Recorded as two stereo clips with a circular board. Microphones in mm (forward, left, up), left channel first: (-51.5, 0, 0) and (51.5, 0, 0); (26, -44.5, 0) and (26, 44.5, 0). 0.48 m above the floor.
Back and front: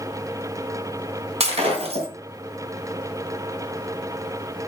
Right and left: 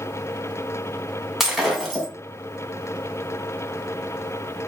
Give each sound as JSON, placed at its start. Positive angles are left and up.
{"t": 1.4, "sound": "breaking glass", "azimuth_deg": 5, "distance_m": 2.5}